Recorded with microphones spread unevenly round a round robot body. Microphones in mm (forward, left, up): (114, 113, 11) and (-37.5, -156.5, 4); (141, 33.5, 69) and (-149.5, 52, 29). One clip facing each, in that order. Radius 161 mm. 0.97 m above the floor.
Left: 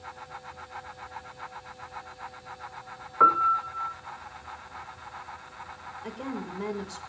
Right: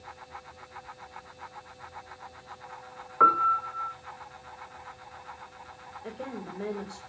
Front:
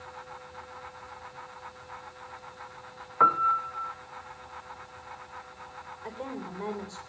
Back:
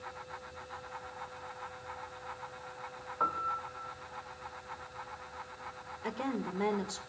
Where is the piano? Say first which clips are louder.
Even, front 10 dB; 30° right, 0.6 m.